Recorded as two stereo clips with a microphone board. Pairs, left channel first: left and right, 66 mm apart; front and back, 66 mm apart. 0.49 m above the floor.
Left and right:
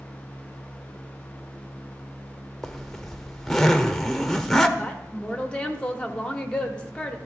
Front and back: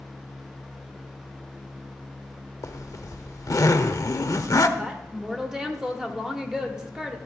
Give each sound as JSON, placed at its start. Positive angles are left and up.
{"t": 2.6, "sound": "a zipper", "azimuth_deg": 5, "distance_m": 0.6}
{"t": 4.8, "sound": "a woman speaking", "azimuth_deg": 115, "distance_m": 0.9}